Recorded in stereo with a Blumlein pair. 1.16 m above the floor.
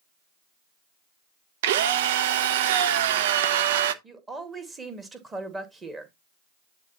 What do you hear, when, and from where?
1.6 s a drill: 55° right, 0.8 m
4.0 s a woman speaking: 15° right, 2 m